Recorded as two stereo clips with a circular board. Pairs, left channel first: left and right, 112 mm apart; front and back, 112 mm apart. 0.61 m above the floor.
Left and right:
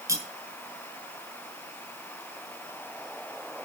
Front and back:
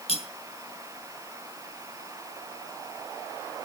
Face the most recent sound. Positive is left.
turn(degrees=-25)